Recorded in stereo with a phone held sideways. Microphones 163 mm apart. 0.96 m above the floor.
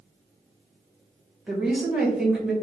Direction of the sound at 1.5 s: 5° right (ahead or behind).